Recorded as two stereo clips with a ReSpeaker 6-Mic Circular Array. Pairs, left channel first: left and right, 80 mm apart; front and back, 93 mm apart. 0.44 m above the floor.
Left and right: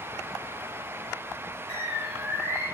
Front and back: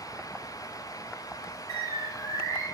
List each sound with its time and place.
1.7 s a bird: 145° right, 1.7 m